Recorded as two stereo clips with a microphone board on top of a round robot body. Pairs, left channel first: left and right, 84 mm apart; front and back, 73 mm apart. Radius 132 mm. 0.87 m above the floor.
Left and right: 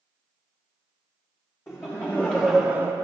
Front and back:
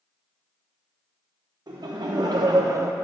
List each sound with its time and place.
1.7 s laughter: 155° left, 1.0 m; by 2.9 s 135° right, 0.5 m